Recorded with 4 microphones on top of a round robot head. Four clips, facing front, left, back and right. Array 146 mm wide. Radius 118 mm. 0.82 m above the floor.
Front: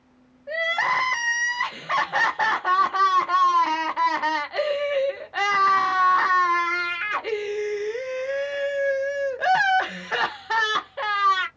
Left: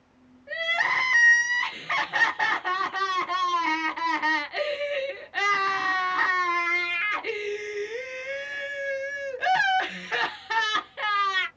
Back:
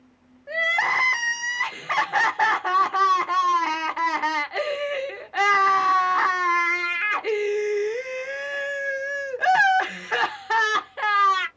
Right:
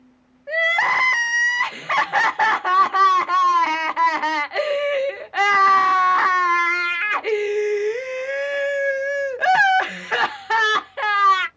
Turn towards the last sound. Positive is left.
turn(degrees=-90)